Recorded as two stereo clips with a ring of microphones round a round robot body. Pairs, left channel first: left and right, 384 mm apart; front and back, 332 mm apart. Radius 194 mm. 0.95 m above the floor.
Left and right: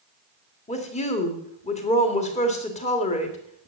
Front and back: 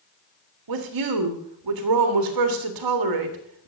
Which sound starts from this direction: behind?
A woman speaking, at 0.7 s.